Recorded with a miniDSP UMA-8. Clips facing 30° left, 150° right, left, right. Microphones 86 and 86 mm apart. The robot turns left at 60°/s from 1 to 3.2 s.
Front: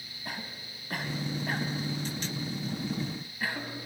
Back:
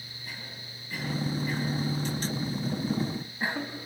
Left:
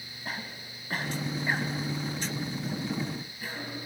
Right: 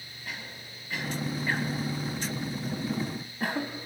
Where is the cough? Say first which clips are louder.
Front 4 dB, left 3 dB; 50° left, 1.7 m; by 3.7 s 85° right, 1.7 m.